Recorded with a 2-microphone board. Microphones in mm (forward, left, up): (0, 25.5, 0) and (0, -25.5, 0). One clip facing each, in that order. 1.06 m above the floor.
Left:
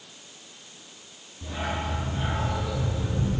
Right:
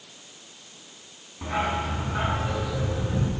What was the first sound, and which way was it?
A dog barking, 70° right (ahead or behind).